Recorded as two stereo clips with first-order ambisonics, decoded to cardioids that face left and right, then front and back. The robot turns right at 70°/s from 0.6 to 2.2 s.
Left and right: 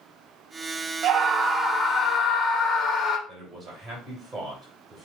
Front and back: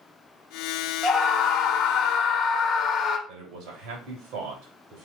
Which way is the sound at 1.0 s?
55° right.